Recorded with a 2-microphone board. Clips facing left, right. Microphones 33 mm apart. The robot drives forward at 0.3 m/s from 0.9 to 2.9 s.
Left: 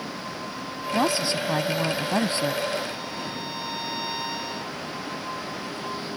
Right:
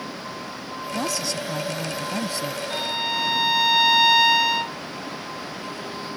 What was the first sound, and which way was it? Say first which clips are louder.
A woman speaking: left 4 dB; 40° left (ahead or behind).